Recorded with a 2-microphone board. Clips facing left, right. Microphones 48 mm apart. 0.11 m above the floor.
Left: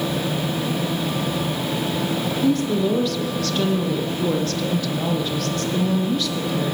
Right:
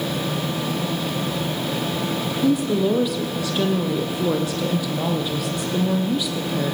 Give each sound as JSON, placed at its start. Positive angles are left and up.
{"t": 2.4, "sound": "a woman speaking", "side_deg": -10, "distance_m": 4.5}